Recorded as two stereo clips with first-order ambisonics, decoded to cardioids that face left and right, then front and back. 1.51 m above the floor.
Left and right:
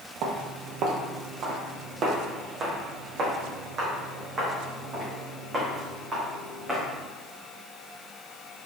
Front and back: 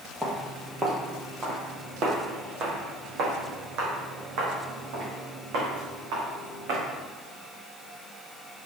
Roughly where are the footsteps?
Right.